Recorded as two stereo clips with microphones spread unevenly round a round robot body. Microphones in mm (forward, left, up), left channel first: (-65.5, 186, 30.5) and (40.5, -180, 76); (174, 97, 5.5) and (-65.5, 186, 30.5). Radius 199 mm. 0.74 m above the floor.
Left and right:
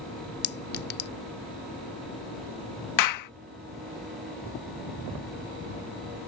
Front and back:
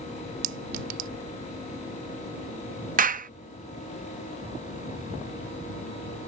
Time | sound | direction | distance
0.4 | a clink | 165° left | ?
3.0 | a clap | 100° left | ?